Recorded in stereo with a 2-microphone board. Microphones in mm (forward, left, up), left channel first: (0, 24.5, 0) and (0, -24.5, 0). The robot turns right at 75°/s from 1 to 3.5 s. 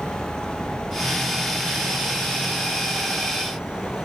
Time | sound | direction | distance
0.0 | an insect | 80° right | ?